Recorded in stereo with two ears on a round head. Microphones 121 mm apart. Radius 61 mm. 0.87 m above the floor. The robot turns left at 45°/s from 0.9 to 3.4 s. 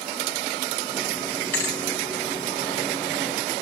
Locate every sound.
1.5 s a thud: 15° left (ahead or behind), 2.5 m; by 1.8 s 30° left (ahead or behind), 2.5 m